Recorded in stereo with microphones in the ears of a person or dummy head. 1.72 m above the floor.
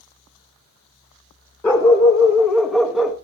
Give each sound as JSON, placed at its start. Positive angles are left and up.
{"t": 1.6, "sound": "a dog barking", "side_deg": 10, "distance_m": 1.1}